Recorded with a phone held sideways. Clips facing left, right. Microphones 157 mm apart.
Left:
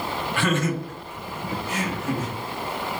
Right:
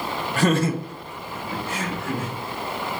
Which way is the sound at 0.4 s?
40° right (ahead or behind).